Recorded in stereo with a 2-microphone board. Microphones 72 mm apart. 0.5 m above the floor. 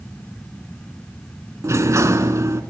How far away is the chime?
I don't hear a chime.